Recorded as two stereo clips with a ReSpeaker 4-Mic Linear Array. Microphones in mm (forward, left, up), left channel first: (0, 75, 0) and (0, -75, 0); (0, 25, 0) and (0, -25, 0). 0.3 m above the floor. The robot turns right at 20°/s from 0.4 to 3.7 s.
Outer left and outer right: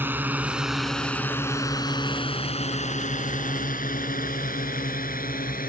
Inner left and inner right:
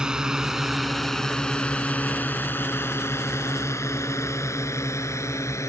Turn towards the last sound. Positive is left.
turn(degrees=75)  # may be behind; listen again after turning